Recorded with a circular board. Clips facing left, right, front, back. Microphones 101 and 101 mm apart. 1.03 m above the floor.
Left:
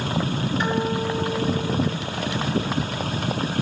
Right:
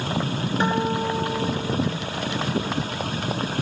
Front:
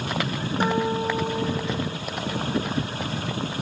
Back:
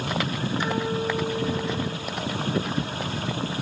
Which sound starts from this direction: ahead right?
A guitar, at 0.6 s.